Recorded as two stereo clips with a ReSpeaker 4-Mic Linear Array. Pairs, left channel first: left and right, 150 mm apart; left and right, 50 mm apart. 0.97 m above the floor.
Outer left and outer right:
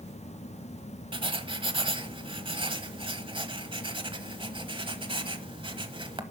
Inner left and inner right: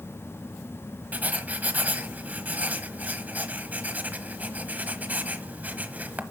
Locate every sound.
1.1 s writing: 35° right (ahead or behind), 1.0 m